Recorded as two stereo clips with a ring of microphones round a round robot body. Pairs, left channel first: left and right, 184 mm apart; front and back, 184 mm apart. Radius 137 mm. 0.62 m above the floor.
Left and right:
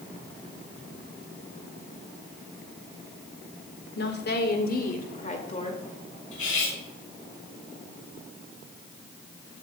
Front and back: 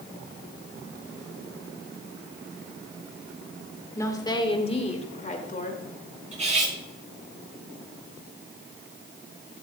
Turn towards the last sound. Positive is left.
turn(degrees=125)